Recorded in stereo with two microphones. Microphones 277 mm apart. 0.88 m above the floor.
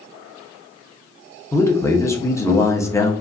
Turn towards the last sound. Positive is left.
turn(degrees=10)  # may be behind; listen again after turning